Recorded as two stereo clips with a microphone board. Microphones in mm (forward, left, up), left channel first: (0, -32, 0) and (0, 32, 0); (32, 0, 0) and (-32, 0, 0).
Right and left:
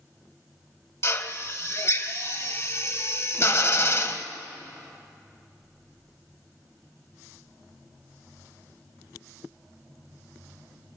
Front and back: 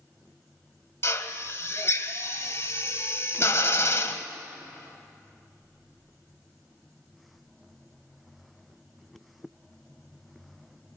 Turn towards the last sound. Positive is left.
turn(degrees=-45)